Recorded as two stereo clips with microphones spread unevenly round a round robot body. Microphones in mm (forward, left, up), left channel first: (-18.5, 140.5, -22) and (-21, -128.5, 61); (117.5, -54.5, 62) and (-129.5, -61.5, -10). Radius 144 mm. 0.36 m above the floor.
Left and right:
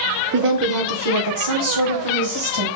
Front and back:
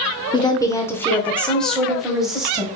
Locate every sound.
0.3 s a woman speaking: 85° right, 0.8 m; by 2.7 s 100° right, 1.9 m